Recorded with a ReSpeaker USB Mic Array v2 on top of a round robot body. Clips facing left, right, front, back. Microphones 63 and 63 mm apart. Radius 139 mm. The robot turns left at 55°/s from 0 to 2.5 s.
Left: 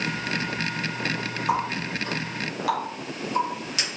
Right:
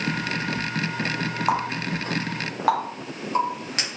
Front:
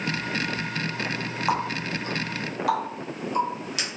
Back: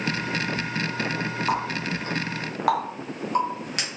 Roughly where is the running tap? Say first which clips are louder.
Even, front 2 dB; right.